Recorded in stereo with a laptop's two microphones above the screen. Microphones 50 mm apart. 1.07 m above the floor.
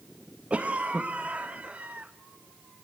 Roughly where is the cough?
Right.